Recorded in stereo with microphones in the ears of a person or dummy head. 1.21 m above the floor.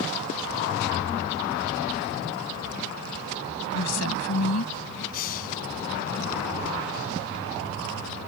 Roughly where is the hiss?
Left.